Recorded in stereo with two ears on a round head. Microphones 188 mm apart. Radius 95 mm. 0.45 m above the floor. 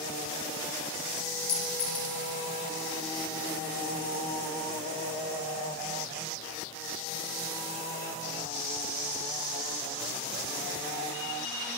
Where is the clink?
40° left (ahead or behind), 1.4 m.